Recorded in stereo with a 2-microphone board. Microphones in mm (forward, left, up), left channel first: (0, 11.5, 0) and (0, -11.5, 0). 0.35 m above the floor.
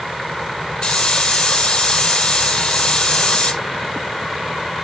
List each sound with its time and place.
0.8 s a hiss: 45° left (ahead or behind), 4 m